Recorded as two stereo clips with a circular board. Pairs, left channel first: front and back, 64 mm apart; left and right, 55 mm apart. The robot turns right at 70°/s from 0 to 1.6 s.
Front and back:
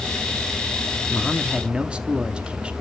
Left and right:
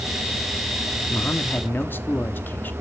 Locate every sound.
1.1 s a man speaking: 80° left, 0.9 m; by 2.7 s 115° left, 0.9 m